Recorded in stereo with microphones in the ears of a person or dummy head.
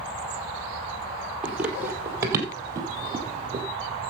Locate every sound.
1.4 s running footsteps: 5° right (ahead or behind), 2.5 m; by 3.6 s 30° right (ahead or behind), 3 m